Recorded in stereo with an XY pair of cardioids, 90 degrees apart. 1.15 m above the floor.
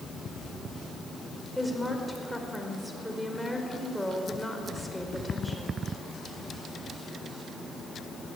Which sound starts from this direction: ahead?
A woman speaking, at 1.6 s.